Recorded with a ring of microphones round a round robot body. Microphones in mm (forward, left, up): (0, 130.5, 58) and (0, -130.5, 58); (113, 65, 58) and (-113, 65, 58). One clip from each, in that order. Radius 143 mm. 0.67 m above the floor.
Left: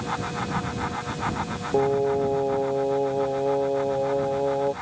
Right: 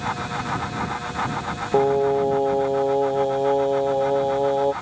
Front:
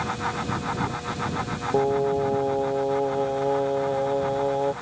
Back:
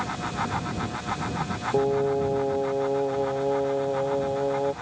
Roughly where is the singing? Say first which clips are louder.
Right 3 dB, front 1 dB; right.